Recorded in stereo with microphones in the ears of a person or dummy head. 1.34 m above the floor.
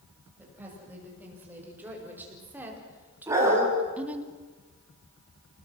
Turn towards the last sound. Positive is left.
turn(degrees=-15)  # may be behind; listen again after turning